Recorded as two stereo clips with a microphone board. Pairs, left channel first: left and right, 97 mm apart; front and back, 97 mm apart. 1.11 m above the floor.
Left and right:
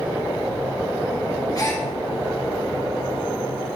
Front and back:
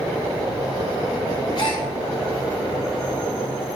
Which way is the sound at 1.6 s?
40° left.